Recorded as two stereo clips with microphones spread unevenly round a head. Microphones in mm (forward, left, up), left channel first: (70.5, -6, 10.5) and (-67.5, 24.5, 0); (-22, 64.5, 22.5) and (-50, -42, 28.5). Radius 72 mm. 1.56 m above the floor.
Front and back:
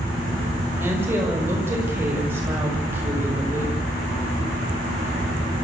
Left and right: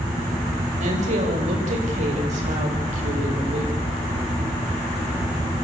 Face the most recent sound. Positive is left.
turn(degrees=-115)